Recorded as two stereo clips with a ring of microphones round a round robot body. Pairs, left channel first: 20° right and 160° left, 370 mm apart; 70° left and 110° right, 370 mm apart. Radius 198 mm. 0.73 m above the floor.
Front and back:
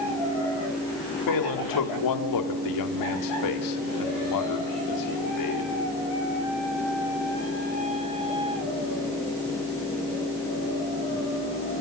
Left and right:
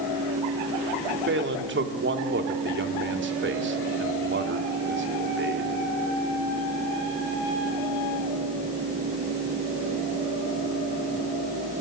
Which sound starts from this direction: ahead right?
A man speaking, at 1.3 s.